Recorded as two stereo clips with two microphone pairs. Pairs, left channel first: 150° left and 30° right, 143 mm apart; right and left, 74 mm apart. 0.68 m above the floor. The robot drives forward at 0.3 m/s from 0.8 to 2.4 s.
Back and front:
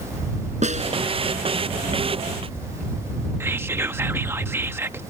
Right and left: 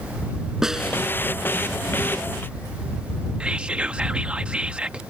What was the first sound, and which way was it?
A snare drum, 5° left.